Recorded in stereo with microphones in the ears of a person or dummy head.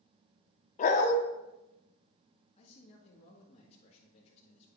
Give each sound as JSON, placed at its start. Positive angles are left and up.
{"t": 0.8, "sound": "a dog barking", "side_deg": 35, "distance_m": 0.9}
{"t": 2.6, "sound": "a man speaking", "side_deg": 30, "distance_m": 1.7}